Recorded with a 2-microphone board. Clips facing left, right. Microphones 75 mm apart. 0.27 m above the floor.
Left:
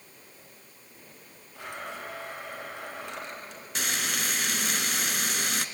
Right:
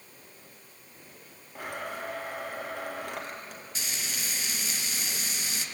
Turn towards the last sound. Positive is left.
turn(degrees=65)  # may be behind; listen again after turning